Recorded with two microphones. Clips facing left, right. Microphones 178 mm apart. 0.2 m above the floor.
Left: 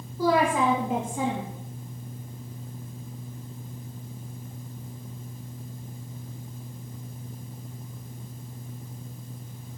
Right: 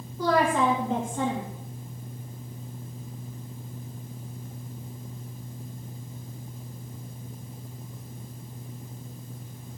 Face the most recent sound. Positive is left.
turn(degrees=5)  # may be behind; listen again after turning